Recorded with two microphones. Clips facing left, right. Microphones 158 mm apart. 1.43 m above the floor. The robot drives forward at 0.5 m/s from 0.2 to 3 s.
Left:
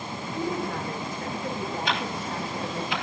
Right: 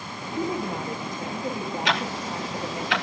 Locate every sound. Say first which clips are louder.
0.4 s a woman speaking: right 2 dB; 20° right (ahead or behind), 2.5 m; by 2.9 s 15° right (ahead or behind), 4 m
1.9 s ticking: right 2 dB; 80° right, 2 m